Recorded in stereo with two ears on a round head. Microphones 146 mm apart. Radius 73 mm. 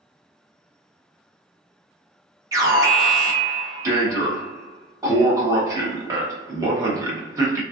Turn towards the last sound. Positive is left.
turn(degrees=-20)  # may be behind; listen again after turning